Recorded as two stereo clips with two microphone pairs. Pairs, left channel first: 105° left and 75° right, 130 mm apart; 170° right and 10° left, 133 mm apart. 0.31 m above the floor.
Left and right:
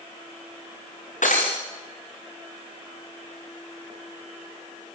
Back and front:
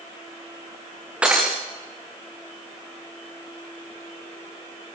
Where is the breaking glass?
90° left, 5 m.